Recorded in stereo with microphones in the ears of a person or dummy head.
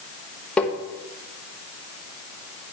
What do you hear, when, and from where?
0.6 s tapping: 5° left (ahead or behind), 0.9 m